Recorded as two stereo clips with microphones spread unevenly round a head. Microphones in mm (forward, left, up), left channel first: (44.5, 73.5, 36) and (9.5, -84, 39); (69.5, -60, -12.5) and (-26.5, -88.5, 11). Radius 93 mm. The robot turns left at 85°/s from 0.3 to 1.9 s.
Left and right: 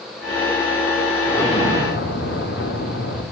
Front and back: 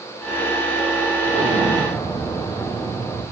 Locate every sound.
1.3 s an explosion: 160° left, 4.5 m; by 3.2 s 110° left, 4.5 m